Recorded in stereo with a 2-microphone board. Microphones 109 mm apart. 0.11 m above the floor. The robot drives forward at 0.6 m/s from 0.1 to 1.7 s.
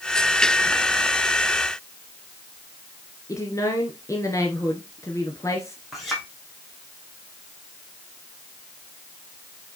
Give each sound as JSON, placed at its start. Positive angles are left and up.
{"t": 3.3, "sound": "a woman speaking", "side_deg": 30, "distance_m": 1.4}
{"t": 5.9, "sound": "a clink", "side_deg": 0, "distance_m": 3.5}